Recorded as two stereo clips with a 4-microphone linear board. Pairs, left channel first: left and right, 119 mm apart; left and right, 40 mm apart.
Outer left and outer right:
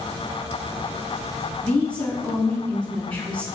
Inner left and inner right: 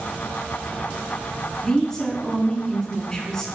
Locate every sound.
1.6 s a woman speaking: 10° left (ahead or behind), 1.3 m